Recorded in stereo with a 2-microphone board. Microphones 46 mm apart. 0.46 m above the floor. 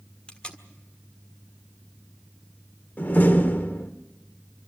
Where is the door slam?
40° left (ahead or behind), 1.1 m.